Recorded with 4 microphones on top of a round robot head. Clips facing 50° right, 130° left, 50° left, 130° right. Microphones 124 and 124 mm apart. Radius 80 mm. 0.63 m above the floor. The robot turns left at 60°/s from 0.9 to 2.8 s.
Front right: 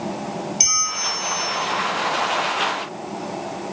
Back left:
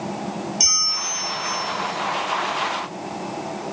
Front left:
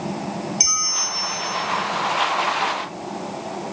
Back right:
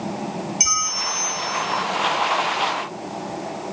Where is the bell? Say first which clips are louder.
Front right 3 dB, back right 2 dB; 10° right, 0.8 m; by 1.6 s 55° right, 0.8 m.